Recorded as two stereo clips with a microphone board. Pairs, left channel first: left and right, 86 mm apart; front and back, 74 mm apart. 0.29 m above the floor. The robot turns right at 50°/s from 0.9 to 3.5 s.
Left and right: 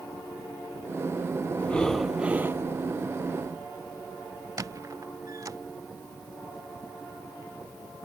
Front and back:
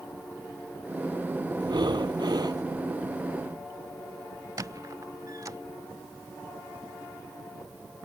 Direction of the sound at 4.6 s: 140° right.